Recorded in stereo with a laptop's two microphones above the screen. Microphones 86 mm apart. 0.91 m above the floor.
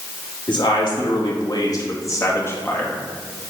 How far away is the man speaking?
About 1.9 m.